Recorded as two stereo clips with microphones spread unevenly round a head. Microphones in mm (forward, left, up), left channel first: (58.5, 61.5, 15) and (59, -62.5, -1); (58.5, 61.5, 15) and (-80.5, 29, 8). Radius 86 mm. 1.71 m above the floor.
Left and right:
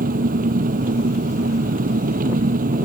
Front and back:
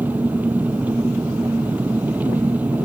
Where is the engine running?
85° right.